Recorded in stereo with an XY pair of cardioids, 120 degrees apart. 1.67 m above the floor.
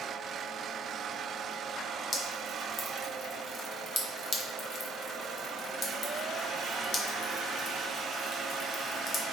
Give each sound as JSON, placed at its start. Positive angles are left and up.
{"t": 2.1, "sound": "dripping", "azimuth_deg": 45, "distance_m": 1.1}